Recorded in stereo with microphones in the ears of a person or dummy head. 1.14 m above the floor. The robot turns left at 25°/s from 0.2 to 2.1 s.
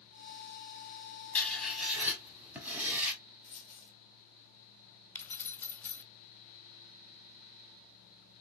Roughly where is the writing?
Centre.